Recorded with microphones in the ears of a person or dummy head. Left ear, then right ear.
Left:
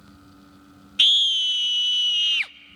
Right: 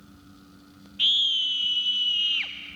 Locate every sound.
1.0 s a scream: 70° left (ahead or behind), 0.5 m